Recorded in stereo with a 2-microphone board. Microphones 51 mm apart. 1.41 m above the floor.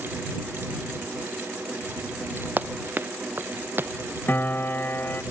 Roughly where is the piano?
Left.